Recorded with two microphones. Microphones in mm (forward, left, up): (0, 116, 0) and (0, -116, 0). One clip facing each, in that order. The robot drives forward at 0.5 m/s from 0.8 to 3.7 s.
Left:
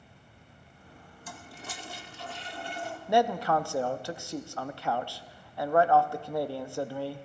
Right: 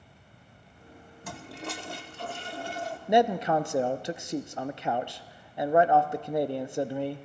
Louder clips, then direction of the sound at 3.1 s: Right 2 dB; 20° right (ahead or behind).